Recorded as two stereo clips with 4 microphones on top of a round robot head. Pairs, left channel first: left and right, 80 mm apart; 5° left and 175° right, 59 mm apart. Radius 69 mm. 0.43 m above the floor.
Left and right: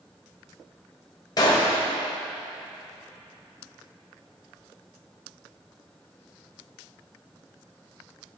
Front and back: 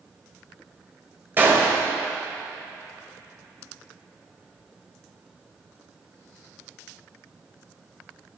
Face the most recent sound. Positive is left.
turn(degrees=130)